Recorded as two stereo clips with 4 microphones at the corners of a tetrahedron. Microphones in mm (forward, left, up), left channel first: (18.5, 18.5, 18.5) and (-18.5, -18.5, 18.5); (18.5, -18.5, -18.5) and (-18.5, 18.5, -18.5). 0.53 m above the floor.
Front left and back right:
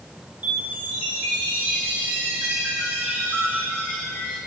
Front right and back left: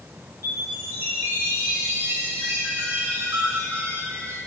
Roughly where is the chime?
Behind.